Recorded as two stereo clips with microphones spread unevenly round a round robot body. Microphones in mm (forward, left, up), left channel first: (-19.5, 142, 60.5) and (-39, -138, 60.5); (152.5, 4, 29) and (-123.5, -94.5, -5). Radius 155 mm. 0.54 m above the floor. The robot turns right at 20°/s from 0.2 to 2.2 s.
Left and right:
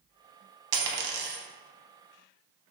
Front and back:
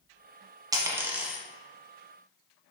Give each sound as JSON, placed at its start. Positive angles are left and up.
{"t": 0.7, "sound": "a dropped coin", "azimuth_deg": -80, "distance_m": 0.6}